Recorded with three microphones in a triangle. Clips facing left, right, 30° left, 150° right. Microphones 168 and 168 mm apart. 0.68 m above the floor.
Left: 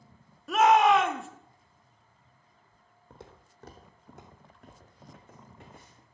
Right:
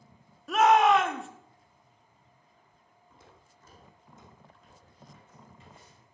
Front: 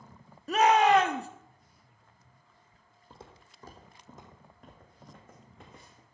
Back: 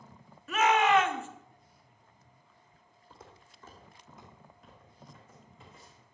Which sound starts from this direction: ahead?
A shout, at 0.5 s.